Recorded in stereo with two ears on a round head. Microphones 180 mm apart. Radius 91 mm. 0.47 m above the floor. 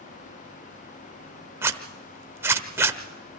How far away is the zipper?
About 0.9 m.